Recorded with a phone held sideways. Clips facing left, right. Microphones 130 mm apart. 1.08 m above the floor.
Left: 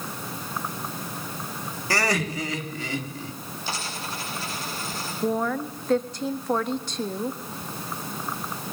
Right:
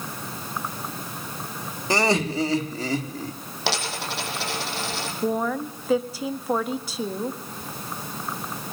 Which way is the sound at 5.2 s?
5° right (ahead or behind).